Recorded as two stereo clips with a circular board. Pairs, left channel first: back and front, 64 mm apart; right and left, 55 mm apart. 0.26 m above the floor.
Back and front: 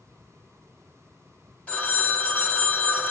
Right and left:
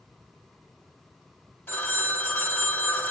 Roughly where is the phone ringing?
Behind right.